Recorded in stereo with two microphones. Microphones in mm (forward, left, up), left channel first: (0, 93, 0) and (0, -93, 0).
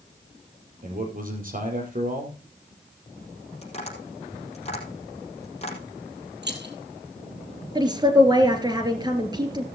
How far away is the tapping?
About 4.5 m.